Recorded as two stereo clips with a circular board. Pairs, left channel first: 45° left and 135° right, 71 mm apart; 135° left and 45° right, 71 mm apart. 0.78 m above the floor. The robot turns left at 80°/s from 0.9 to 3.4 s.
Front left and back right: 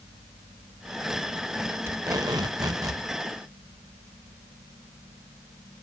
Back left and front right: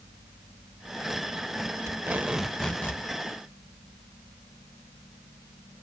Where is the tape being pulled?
85° right, 1.0 m; by 3.0 s straight behind, 1.0 m.